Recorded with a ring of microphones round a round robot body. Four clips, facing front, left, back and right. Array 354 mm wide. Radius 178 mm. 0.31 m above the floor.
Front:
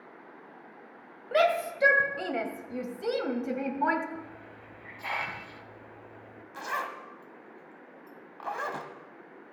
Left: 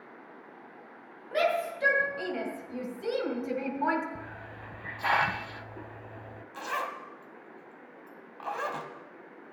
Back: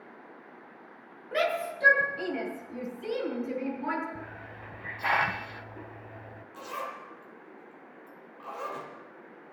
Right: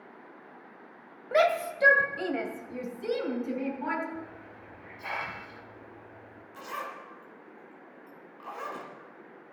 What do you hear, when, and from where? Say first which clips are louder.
1.3 s a shout: right 3 dB, front 4 dB; 55° right, 2 m; by 4.0 s 20° left, 2.5 m
4.2 s a hiss: even, back 1 dB; 130° left, 0.6 m
6.5 s a zipper: left 4 dB, front 4 dB; 35° left, 1.6 m